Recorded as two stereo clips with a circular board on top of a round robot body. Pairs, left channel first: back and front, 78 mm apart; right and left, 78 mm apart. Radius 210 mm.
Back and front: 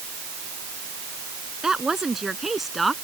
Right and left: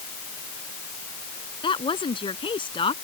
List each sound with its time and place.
1.6 s a woman speaking: 85° right; by 2.9 s 90° right